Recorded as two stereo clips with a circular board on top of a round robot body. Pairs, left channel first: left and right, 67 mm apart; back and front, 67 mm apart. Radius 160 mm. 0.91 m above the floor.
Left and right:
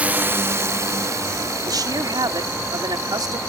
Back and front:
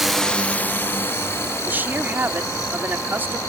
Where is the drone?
75° right; by 3.5 s 135° right.